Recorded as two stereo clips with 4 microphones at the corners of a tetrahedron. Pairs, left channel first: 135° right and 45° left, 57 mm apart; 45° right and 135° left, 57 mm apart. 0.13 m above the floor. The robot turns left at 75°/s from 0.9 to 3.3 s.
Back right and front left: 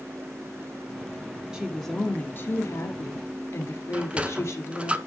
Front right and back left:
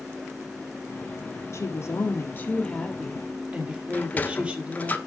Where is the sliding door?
10° right, 0.9 m.